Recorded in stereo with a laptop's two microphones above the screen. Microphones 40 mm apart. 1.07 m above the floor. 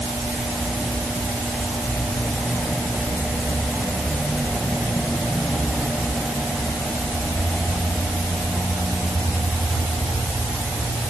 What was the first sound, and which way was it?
Only background noise.